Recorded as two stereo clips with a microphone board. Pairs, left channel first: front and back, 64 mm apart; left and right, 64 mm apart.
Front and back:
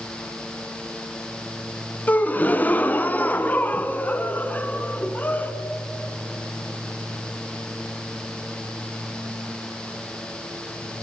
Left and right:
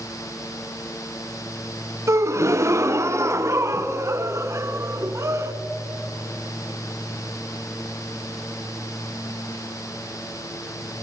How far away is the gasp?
About 0.9 m.